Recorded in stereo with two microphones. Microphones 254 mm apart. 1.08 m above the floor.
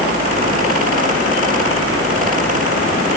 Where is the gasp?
No gasp in this recording.